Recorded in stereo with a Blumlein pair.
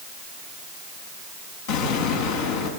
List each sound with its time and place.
1.7 s an explosion: 50° left, 6 m